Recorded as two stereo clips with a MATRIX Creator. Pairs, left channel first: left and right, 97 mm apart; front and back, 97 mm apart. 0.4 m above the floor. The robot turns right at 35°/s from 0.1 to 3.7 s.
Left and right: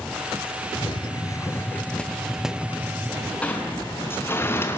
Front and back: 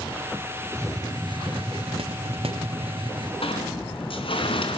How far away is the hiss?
About 1.1 m.